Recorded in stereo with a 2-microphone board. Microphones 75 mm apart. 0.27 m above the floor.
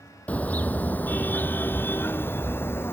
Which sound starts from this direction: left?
A car horn, at 0.3 s.